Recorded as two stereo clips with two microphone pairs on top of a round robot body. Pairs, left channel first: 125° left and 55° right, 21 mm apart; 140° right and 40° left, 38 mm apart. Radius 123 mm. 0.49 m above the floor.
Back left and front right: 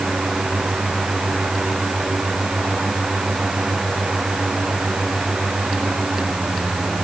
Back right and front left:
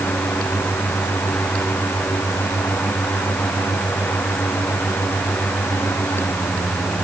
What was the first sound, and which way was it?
Only background noise.